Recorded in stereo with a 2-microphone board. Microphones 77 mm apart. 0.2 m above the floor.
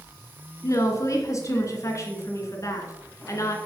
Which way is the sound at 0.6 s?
40° left (ahead or behind).